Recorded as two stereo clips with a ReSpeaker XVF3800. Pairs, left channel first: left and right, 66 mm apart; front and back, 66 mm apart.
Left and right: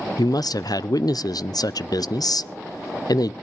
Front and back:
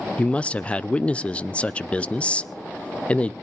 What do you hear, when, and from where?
0.2 s a man speaking: 70° left, 0.5 m